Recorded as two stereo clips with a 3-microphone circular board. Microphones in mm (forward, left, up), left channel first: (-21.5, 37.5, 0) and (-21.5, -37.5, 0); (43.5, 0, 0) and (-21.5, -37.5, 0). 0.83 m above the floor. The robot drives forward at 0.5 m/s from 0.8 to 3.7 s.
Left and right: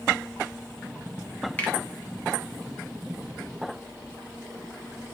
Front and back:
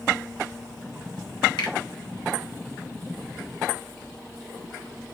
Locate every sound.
1.6 s a finger snap: 20° left, 0.8 m; by 1.8 s 25° left, 0.7 m